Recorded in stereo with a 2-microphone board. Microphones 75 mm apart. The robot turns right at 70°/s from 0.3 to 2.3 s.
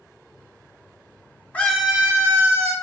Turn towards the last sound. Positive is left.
turn(degrees=-145)